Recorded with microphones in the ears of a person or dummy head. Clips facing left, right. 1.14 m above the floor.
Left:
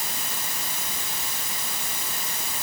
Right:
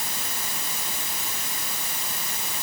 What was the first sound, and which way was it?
Only background noise.